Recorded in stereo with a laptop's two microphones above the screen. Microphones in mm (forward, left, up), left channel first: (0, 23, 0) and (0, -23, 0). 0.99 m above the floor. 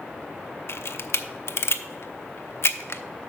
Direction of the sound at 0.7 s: 60° left (ahead or behind).